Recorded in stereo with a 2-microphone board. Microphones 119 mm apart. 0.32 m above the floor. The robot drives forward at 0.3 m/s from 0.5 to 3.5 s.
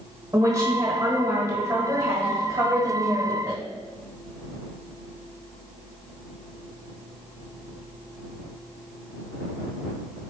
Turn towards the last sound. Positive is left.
turn(degrees=-20)  # may be behind; listen again after turning